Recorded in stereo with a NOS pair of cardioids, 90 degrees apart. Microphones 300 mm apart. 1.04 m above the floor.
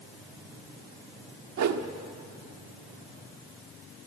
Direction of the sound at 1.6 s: 65° right.